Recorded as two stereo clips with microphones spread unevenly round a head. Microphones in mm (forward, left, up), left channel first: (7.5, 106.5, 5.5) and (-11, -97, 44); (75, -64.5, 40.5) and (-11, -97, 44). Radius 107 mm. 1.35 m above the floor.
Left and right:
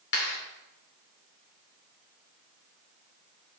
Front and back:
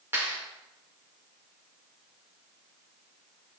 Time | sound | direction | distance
0.1 | a clap | 125° left | 3 m